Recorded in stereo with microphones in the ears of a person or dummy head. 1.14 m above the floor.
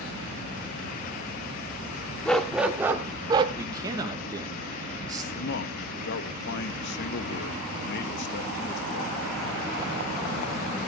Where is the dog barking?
5° left (ahead or behind), 1.1 m; by 3.5 s 25° right (ahead or behind), 1.5 m.